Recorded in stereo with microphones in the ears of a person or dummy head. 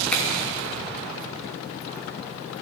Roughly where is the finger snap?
Centre.